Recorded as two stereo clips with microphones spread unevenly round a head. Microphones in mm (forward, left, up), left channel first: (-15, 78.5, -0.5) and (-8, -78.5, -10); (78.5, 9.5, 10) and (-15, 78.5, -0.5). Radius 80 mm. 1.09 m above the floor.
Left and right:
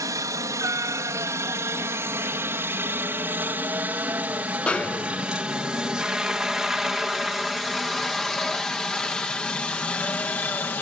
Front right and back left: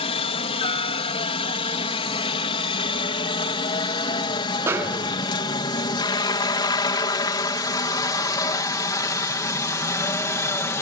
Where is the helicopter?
20° right; by 10.8 s 20° left.